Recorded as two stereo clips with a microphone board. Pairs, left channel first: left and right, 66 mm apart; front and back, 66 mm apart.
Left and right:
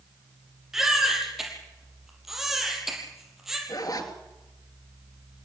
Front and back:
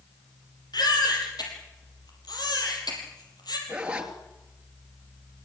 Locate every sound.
0.7 s a baby crying: 5° right, 6 m
3.7 s a zipper: 105° left, 2.5 m